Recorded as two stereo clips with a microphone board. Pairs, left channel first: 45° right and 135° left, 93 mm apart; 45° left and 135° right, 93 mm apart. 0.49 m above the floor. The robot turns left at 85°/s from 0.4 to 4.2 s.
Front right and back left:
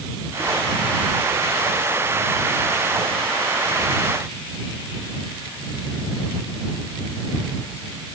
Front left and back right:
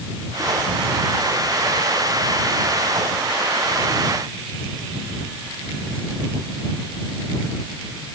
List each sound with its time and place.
Only background noise.